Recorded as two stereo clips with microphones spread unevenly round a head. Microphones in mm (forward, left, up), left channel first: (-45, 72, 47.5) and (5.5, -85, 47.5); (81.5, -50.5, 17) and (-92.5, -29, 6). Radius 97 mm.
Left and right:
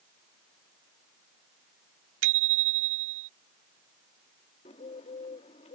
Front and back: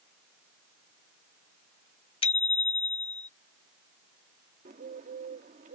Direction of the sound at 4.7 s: 145° left.